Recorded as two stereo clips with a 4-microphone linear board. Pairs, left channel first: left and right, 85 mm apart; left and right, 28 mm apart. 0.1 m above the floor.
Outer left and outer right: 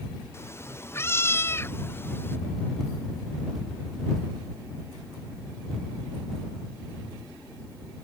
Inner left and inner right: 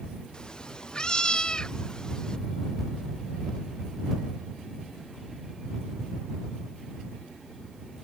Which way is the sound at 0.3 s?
30° left (ahead or behind).